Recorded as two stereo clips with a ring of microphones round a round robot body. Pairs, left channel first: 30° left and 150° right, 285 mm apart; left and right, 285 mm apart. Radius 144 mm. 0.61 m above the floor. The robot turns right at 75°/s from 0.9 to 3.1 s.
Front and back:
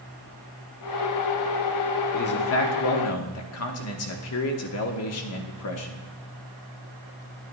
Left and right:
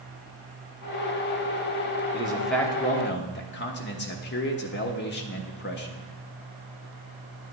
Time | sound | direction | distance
2.1 | a man speaking | 25° right | 1.1 m